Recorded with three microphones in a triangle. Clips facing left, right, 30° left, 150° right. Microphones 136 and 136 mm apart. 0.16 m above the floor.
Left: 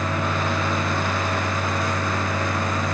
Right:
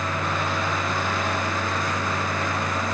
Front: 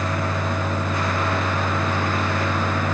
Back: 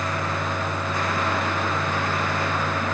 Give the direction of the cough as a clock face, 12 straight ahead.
I don't hear a cough.